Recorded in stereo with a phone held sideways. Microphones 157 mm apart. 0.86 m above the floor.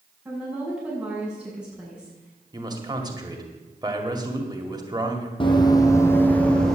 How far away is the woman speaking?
About 7 m.